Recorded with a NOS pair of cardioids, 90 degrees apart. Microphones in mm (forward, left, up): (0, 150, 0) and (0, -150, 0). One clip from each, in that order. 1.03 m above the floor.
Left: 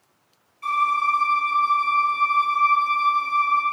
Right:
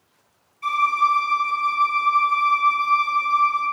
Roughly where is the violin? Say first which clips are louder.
Right 2 dB; ahead.